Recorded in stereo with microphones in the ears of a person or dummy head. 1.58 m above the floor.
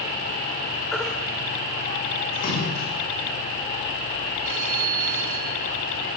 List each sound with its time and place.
0.9 s a baby crying: 5° left (ahead or behind), 1.7 m
2.3 s a splash: 50° left (ahead or behind), 7.5 m
4.4 s a phone ringing: 65° right (ahead or behind), 5.5 m